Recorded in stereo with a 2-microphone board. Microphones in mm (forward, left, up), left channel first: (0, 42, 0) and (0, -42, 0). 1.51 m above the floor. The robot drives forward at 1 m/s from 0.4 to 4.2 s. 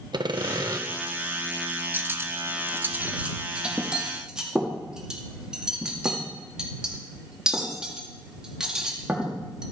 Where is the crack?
I don't hear a crack.